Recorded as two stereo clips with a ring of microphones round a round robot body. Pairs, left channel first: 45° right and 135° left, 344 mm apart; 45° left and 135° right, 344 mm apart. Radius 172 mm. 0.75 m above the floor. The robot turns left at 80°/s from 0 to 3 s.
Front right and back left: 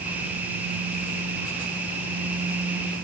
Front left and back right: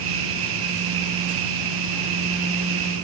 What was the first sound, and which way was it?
Only background noise.